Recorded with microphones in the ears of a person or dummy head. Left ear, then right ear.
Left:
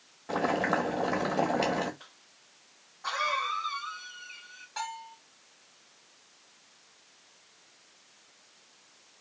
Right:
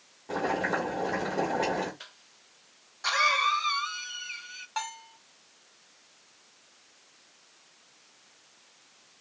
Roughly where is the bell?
Right.